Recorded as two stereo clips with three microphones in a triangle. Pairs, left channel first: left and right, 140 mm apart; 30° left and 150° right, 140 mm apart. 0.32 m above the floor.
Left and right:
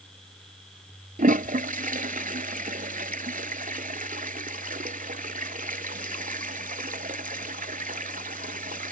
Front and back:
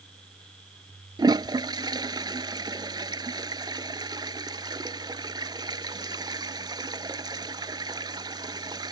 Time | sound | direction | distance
1.2 | a toilet flushing | 90° right | ?